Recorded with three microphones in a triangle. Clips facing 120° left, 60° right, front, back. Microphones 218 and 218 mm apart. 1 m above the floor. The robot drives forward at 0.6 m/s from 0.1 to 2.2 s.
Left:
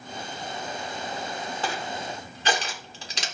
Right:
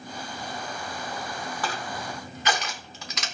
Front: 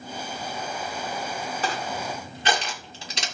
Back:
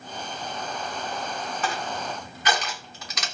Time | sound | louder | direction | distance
1.6 | crushing | left 2 dB, front 1 dB | 55° left | 2.5 m